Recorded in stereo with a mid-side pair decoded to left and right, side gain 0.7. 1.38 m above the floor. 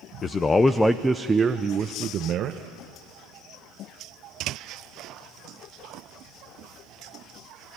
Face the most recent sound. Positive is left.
turn(degrees=-50)